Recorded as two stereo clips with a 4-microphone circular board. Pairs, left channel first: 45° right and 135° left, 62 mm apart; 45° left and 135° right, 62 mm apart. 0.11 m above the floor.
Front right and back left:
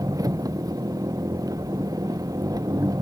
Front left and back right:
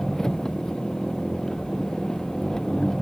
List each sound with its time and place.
0.0 s an engine running: 125° left